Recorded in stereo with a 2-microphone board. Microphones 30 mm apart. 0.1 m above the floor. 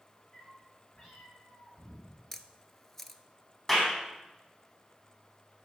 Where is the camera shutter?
10° left (ahead or behind), 0.6 m.